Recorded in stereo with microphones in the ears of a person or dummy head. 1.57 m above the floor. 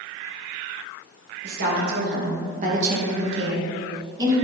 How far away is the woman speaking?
About 2.5 m.